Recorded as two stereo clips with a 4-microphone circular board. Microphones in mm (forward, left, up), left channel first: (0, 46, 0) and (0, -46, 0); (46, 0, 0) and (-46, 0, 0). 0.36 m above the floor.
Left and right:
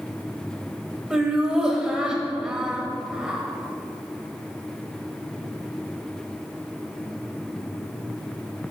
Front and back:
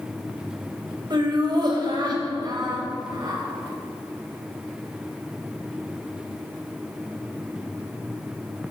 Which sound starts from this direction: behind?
Laughter, at 1.1 s.